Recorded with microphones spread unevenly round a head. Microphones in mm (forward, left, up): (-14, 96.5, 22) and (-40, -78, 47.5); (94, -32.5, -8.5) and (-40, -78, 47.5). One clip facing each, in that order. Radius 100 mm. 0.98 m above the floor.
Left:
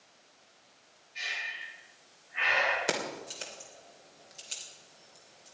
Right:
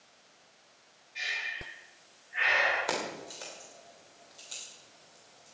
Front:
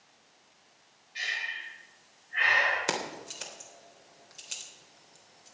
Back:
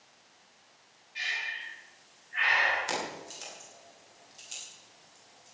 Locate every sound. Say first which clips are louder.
1.1 s breathing: right 2 dB, even; 15° right, 4.5 m
2.9 s keys jangling: left 1 dB, front 1 dB; 15° left, 3 m